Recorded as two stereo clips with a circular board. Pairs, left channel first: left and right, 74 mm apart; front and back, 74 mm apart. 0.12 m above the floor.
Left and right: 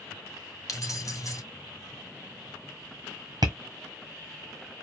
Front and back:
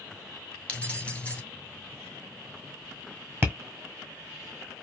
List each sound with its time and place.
0.7 s keys jangling: 70° left, 1.3 m
3.4 s tapping: 120° right, 1.5 m